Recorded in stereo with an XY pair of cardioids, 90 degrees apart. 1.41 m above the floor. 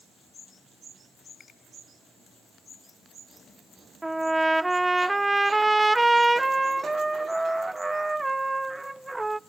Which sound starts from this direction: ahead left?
A finger snap, at 1.4 s.